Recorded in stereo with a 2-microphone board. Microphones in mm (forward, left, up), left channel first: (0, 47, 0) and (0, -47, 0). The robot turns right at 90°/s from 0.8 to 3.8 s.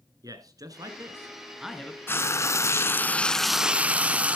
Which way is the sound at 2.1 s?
50° left.